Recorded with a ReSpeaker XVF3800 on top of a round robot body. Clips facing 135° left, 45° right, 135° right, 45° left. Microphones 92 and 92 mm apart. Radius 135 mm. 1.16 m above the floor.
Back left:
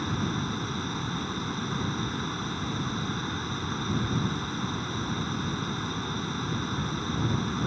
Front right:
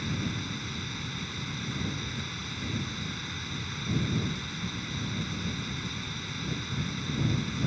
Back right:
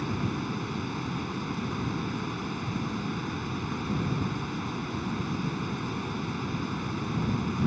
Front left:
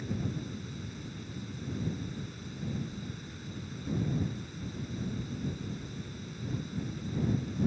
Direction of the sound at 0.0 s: 165° right.